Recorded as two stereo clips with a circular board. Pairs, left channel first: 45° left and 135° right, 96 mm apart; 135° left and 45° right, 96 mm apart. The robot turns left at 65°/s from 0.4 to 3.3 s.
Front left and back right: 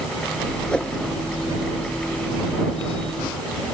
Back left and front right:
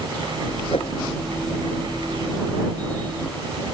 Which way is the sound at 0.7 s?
130° left.